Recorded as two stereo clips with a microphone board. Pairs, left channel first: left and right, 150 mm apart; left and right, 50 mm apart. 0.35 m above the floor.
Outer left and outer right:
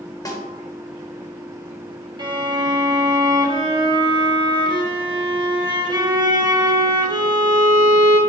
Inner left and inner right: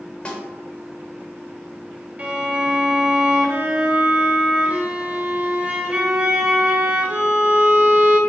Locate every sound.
0.2 s a snare drum: 25° left (ahead or behind), 1.1 m
2.2 s a violin: 30° right (ahead or behind), 0.8 m